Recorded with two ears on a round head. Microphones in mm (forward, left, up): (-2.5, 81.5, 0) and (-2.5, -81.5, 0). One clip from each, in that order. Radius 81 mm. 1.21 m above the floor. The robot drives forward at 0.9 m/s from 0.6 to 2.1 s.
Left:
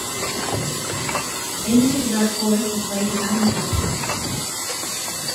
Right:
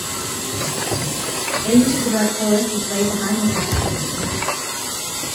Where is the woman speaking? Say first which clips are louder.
Right 1 dB; 5° right (ahead or behind), 3.5 m.